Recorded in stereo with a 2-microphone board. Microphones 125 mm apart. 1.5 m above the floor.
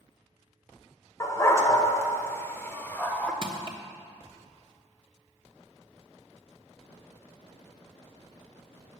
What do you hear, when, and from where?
1.2 s a dog barking: 25° left (ahead or behind), 1.8 m; by 3.3 s 10° left (ahead or behind), 1.1 m
3.4 s crushing: 45° right (ahead or behind), 1.3 m